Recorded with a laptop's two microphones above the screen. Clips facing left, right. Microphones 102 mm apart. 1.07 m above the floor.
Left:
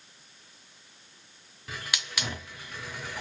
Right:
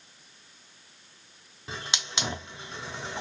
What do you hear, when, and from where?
1.7 s a hiss: 25° right (ahead or behind), 0.5 m